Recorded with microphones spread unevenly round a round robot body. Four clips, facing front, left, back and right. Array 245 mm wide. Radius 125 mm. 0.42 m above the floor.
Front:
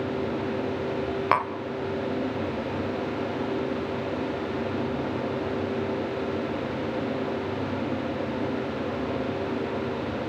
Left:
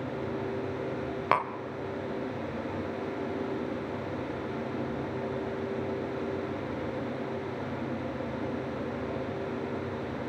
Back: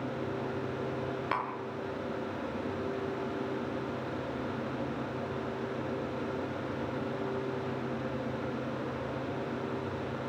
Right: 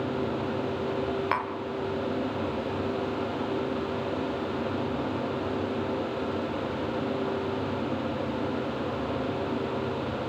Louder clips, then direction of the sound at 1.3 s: Left 2 dB, front 10 dB; 30° left.